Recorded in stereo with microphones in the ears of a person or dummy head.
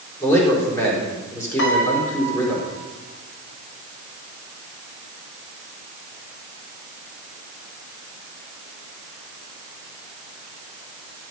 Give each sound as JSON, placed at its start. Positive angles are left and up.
{"t": 0.2, "sound": "a man speaking", "side_deg": 15, "distance_m": 4.0}
{"t": 1.6, "sound": "a piano", "side_deg": 70, "distance_m": 1.9}